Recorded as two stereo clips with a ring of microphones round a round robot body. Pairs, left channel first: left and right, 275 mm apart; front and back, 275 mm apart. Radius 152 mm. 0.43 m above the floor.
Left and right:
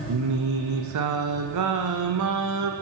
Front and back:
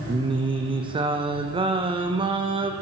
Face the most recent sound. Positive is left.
turn(degrees=-110)